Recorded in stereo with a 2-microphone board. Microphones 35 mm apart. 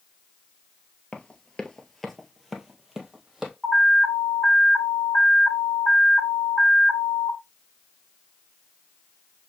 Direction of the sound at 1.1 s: 30° left (ahead or behind).